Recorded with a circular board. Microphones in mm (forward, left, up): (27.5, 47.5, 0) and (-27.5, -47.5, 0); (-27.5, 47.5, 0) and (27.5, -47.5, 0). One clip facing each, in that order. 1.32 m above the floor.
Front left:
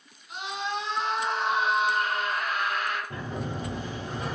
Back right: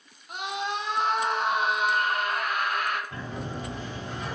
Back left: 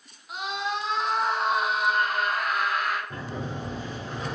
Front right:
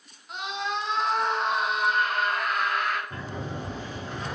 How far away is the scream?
About 0.6 m.